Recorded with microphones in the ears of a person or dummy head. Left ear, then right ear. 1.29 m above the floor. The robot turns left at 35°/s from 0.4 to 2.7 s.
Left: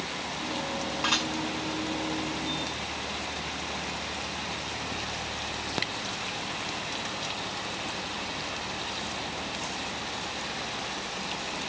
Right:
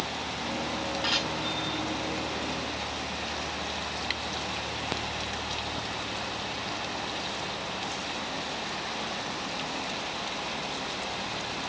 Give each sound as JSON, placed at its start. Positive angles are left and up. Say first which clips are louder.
{"t": 1.0, "sound": "dishes clattering", "louder": "left 1 dB", "side_deg": 20, "distance_m": 6.0}